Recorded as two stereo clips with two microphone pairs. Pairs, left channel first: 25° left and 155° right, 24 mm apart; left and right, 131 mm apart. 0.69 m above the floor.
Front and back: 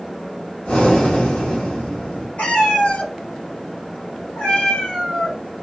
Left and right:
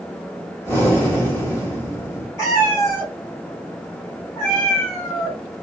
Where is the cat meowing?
20° left, 1.9 m.